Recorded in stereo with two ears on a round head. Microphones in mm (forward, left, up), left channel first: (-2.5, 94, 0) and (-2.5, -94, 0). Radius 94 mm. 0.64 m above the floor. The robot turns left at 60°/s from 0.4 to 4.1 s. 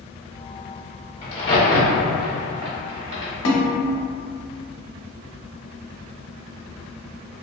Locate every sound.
1.2 s a crack: 30° left (ahead or behind), 1.0 m; by 3.3 s 35° right (ahead or behind), 1.0 m
3.5 s a snare drum: 65° left (ahead or behind), 0.6 m; by 3.7 s 75° left (ahead or behind), 0.6 m